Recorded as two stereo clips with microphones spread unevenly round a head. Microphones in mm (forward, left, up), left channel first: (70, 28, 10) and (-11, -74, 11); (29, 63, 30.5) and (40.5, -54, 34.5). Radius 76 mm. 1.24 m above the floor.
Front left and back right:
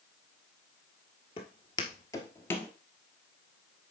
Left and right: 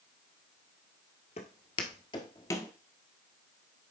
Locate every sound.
1.4 s footsteps: 95° left, 1.6 m